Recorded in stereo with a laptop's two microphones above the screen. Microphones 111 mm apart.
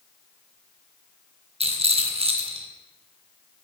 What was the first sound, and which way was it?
A rattle, 60° right (ahead or behind).